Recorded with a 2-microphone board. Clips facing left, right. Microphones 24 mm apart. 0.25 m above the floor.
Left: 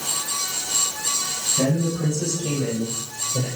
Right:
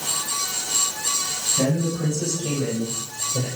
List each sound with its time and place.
1.6 s a man speaking: 15° left (ahead or behind), 9 m; by 3.5 s 25° left (ahead or behind), 8.5 m